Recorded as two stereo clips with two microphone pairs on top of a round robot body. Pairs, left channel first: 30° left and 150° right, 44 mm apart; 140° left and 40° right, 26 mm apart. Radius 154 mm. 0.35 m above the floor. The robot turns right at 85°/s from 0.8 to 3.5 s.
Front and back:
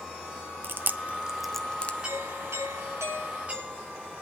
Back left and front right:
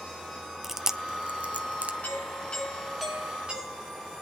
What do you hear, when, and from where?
0.6 s chewing: 120° right, 1.0 m; by 1.9 s 20° right, 1.0 m
2.0 s a doorbell: 150° left, 6.5 m; by 4.1 s 85° right, 6.5 m